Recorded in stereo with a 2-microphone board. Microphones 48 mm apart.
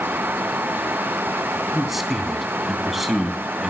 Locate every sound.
1.7 s a man speaking: 5° right (ahead or behind), 2.5 m